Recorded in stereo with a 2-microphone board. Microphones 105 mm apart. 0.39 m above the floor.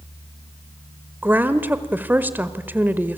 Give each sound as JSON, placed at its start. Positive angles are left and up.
{"t": 1.2, "sound": "a woman speaking", "side_deg": -20, "distance_m": 1.3}